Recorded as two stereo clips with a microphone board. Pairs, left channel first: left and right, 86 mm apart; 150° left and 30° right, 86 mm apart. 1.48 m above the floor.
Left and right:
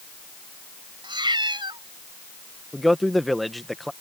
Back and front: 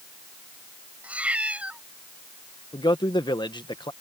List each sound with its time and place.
1.0 s a cat meowing: 105° right
2.7 s a man speaking: straight behind